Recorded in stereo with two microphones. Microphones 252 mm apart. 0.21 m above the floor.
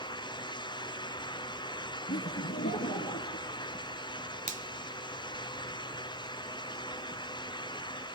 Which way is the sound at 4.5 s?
30° right (ahead or behind).